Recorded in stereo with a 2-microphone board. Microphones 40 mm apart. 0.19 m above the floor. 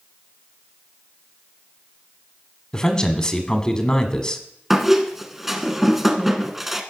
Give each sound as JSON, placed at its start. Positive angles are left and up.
{"t": 2.7, "sound": "a man speaking", "side_deg": 20, "distance_m": 1.1}
{"t": 4.7, "sound": "a squeak", "side_deg": -5, "distance_m": 1.0}